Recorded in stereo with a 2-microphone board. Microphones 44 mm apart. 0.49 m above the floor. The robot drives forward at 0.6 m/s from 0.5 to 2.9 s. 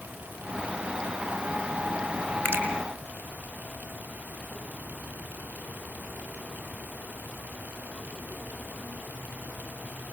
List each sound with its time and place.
2.5 s a finger snap: 45° right (ahead or behind), 5.5 m